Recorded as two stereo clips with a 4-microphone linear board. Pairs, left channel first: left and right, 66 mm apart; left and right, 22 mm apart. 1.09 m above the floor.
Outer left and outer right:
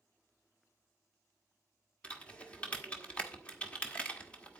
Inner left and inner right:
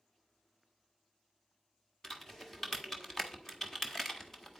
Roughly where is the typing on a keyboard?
Centre.